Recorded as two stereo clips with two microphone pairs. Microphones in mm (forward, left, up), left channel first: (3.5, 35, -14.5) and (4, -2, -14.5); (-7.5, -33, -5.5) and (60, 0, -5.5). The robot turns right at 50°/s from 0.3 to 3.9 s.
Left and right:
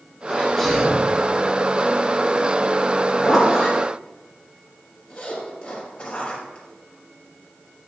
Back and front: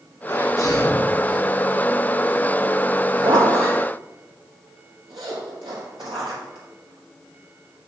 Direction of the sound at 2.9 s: 25° right.